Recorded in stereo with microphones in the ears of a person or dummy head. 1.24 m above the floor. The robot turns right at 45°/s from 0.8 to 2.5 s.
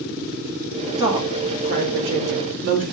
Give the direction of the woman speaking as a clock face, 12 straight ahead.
5 o'clock.